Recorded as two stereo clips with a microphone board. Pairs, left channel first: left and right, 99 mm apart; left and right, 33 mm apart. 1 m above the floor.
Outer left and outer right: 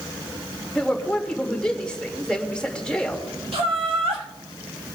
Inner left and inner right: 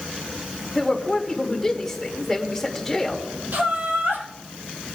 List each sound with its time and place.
0.8 s a woman speaking: 10° left (ahead or behind), 1.9 m
3.5 s laughter: 80° right, 2.5 m